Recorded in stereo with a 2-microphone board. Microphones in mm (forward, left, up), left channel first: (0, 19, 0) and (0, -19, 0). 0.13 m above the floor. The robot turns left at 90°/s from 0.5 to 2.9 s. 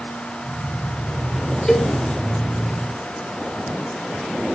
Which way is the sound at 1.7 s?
20° left (ahead or behind).